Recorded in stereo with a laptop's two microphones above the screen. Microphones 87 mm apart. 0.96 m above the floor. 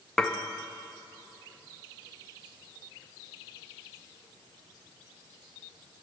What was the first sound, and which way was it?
Dishes clattering, 5° left (ahead or behind).